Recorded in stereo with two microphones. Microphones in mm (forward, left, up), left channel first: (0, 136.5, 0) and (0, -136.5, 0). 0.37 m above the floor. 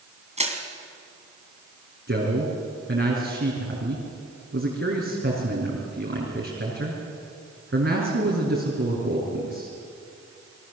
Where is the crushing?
25° right (ahead or behind), 3 m.